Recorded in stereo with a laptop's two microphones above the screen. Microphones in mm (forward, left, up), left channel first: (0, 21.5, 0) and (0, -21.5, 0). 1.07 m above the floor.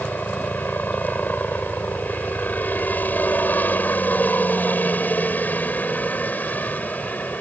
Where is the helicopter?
45° left (ahead or behind); by 7.4 s 40° left (ahead or behind).